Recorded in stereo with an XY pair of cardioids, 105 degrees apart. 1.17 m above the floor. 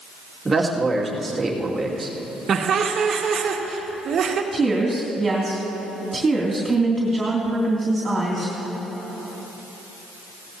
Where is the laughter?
55° right, 1.8 m.